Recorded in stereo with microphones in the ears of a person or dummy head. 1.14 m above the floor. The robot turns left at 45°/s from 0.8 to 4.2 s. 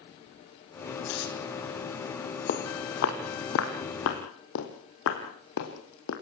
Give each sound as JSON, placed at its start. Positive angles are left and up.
{"t": 1.1, "sound": "tearing paper", "side_deg": 60, "distance_m": 5.5}
{"t": 2.5, "sound": "footsteps", "side_deg": 45, "distance_m": 2.5}